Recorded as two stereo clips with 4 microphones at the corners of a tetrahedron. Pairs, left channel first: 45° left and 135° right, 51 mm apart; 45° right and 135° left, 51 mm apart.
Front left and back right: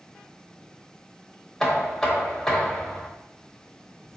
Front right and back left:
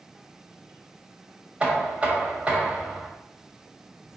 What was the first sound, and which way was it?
Knocking, 115° left.